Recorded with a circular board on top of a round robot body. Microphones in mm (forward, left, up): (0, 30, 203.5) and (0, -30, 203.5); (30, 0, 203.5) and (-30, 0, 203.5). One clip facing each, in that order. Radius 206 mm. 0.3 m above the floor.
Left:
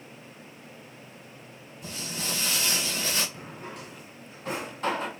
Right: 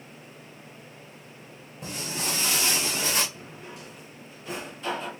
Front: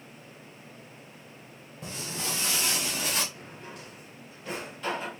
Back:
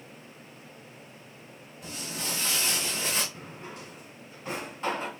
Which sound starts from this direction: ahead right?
Footsteps, at 1.8 s.